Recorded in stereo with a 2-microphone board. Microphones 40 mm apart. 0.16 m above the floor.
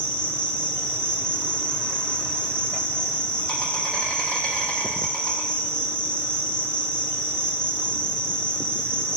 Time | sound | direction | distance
0.0 | an insect | 20° left (ahead or behind) | 0.7 m